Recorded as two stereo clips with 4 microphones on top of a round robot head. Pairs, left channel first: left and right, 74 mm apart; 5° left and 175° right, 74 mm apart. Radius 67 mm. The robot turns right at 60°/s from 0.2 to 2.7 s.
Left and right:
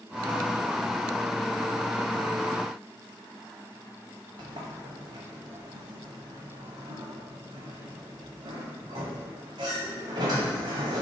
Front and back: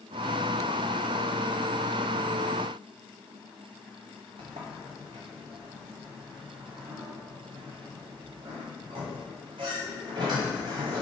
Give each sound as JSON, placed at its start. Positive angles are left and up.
{"t": 4.4, "sound": "a sliding door", "azimuth_deg": -140, "distance_m": 1.5}